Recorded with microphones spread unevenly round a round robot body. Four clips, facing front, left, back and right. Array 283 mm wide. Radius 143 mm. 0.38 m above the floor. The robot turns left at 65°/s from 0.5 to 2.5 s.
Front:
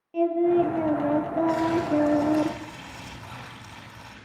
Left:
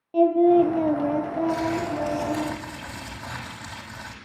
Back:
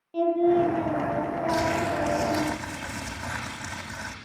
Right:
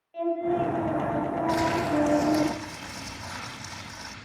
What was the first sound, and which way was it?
Singing, 90° left.